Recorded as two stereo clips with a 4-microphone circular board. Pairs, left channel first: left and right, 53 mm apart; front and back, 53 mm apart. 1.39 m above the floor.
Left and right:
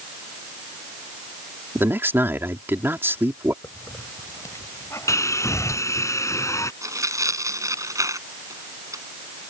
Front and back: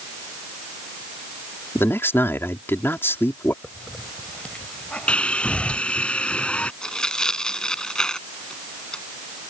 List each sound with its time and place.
1.8 s a man speaking: 45° right
3.6 s a hiss: 65° left
5.1 s sawing: 65° left
6.8 s tearing paper: 80° right